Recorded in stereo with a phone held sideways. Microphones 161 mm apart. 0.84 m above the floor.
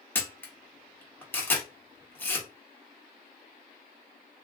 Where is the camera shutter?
10° left (ahead or behind), 0.9 m.